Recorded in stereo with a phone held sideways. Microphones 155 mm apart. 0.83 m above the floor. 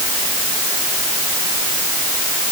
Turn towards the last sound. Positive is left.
No sound to turn to.